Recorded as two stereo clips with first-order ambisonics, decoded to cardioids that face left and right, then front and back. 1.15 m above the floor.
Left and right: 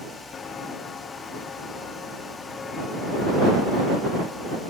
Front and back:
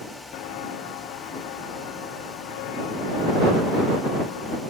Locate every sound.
0.3 s footsteps: 25° left; by 4.6 s 15° left